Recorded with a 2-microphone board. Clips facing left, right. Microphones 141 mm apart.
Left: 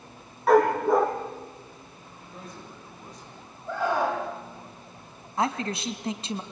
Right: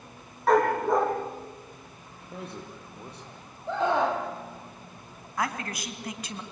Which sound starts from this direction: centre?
A dog barking, at 0.5 s.